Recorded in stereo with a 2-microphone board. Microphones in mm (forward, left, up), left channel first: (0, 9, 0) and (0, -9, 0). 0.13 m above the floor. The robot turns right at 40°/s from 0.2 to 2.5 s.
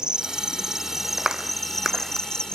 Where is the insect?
50° right; by 2.5 s 45° left.